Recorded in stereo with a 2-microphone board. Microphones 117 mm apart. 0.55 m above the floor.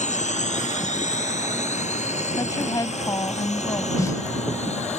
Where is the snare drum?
25° left (ahead or behind).